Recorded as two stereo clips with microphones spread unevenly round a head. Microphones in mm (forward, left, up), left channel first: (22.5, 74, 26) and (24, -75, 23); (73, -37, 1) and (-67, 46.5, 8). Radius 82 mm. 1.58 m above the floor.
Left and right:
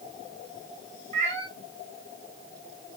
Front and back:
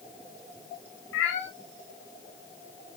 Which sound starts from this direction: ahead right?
A cat meowing, at 1.1 s.